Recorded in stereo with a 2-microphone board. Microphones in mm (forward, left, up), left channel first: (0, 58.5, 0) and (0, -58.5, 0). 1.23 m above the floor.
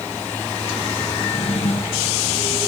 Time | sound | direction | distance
1.2 | a drawer | 65° left (ahead or behind) | 4 m